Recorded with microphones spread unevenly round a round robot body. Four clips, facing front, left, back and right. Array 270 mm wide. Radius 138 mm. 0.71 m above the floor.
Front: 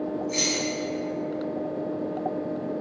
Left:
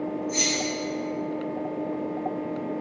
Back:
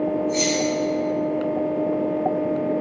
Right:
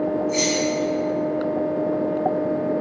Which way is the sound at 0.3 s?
20° right.